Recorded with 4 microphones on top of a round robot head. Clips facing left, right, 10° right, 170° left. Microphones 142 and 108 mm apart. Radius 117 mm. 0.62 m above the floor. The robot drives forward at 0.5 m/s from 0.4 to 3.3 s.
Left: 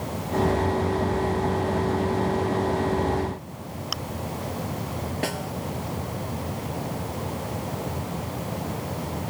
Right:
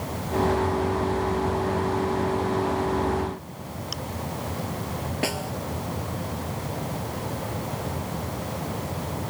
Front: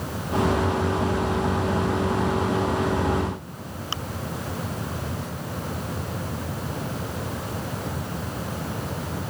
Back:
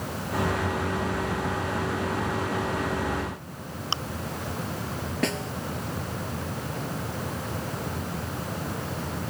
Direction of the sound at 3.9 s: 110° left.